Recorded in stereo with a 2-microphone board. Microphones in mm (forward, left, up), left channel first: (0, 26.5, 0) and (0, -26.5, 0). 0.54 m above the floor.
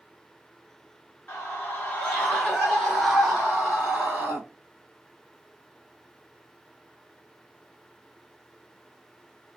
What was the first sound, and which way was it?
A scream, 30° left (ahead or behind).